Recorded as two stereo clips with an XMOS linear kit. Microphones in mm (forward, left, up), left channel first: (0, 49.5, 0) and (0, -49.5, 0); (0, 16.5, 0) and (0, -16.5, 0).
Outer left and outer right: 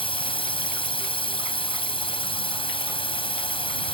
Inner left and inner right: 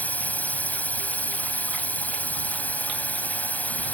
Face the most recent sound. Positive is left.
turn(degrees=60)  # may be behind; listen again after turning